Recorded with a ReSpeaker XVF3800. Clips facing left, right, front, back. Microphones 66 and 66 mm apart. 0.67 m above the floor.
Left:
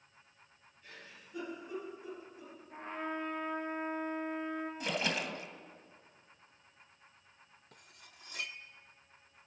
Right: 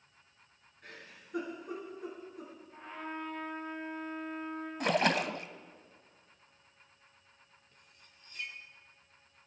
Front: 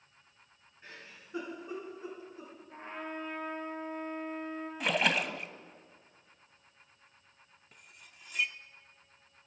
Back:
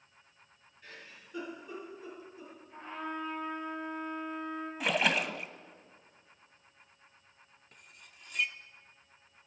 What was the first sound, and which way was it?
A giggle, 65° right.